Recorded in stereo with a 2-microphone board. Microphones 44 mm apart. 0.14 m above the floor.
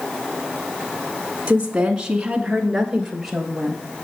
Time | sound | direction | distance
1.5 | a woman speaking | 20° right (ahead or behind) | 1.3 m